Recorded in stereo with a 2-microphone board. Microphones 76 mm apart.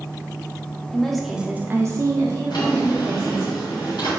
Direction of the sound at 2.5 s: 75° left (ahead or behind).